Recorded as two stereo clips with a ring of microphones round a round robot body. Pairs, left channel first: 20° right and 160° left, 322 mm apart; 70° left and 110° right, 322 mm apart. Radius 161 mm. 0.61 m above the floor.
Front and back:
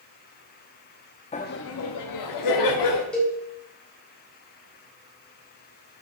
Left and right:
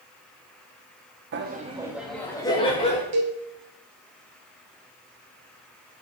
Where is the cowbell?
110° right, 2.5 m.